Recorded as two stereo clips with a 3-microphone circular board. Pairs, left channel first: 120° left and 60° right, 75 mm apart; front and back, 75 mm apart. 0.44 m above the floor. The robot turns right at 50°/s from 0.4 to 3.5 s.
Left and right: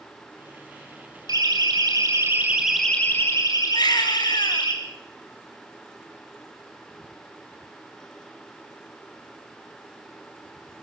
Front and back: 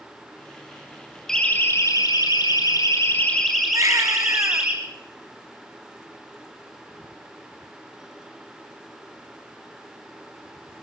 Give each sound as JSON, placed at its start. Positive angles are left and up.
{"t": 1.3, "sound": "a siren", "azimuth_deg": -85, "distance_m": 2.0}
{"t": 3.7, "sound": "a baby crying", "azimuth_deg": 135, "distance_m": 1.4}